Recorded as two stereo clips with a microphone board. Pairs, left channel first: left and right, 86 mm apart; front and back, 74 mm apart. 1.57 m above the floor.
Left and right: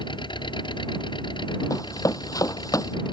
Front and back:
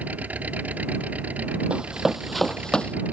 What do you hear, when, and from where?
0.0 s an engine running: 110° left
1.7 s running footsteps: 110° left; by 3.0 s 70° left